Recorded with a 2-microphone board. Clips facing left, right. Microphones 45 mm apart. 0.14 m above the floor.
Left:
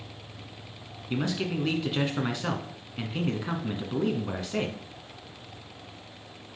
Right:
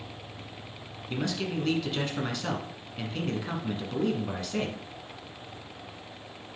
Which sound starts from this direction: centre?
A man speaking, at 1.1 s.